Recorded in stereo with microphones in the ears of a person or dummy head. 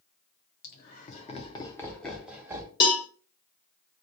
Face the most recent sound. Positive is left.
turn(degrees=25)  # may be behind; listen again after turning